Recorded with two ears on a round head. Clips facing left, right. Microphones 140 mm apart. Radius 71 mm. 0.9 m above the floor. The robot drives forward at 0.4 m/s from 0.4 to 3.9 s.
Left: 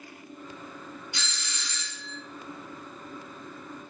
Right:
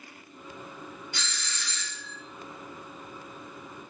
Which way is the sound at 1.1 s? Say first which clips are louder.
Right 1 dB; 15° left (ahead or behind).